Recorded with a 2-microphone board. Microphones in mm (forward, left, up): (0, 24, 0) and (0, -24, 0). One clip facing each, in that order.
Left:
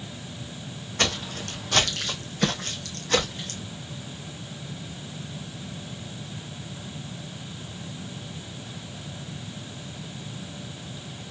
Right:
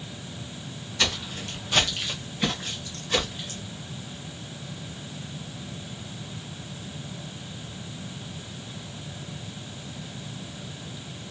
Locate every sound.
1.0 s footsteps: 50° left (ahead or behind), 1.7 m; by 3.6 s 70° left (ahead or behind), 2.5 m